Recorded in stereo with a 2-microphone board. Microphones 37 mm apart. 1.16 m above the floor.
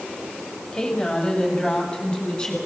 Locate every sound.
0.7 s a woman speaking: 20° left (ahead or behind), 6.5 m